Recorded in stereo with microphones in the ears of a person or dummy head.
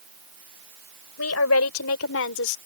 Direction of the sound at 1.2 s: 85° left.